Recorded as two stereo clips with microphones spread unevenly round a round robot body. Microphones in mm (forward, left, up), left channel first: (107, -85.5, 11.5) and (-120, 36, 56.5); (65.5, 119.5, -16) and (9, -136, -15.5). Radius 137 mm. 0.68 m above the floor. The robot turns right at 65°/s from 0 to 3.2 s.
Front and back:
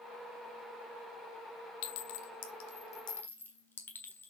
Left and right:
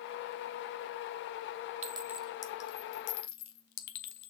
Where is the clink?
35° right, 1.3 m; by 4.3 s 50° left, 1.3 m.